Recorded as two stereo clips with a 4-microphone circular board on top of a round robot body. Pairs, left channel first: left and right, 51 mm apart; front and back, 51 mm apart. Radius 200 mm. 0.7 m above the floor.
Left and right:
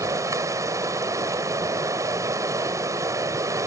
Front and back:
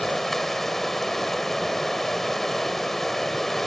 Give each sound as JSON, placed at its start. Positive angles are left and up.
{"t": 0.0, "sound": "running water", "azimuth_deg": -85}